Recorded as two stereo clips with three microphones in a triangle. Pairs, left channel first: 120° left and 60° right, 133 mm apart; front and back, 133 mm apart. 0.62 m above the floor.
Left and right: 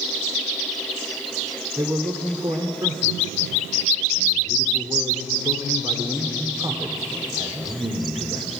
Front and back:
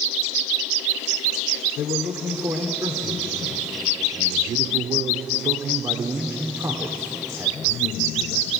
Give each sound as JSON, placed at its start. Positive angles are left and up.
{"t": 1.8, "sound": "a man speaking", "azimuth_deg": -120, "distance_m": 1.9}